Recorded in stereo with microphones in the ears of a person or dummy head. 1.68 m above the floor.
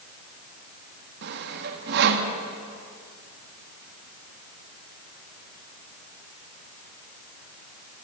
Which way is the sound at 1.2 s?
60° right (ahead or behind).